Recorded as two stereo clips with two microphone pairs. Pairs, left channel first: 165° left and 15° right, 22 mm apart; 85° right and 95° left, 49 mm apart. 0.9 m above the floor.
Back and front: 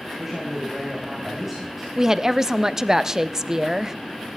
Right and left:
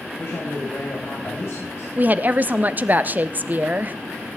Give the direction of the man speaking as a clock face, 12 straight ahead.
3 o'clock.